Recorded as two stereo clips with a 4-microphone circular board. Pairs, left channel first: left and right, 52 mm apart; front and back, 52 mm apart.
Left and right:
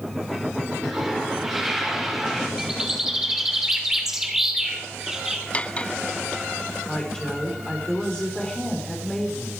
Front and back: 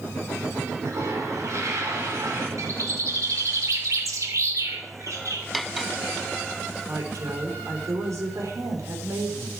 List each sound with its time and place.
0.8 s a toilet flushing: 175° right, 5 m
2.6 s a bird: 170° right, 3 m
5.5 s cutlery clinking: 90° left, 0.6 m
6.8 s a woman speaking: 165° left, 4.5 m